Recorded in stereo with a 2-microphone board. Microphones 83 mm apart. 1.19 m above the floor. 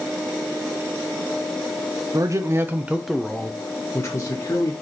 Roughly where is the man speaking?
Right.